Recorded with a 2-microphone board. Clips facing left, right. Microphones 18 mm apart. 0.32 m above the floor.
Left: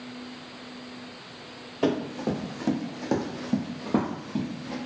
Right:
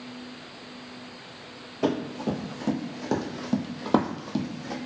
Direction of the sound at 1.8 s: 30° left (ahead or behind).